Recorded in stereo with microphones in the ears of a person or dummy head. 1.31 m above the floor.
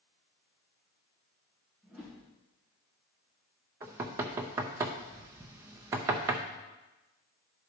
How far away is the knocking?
About 0.5 m.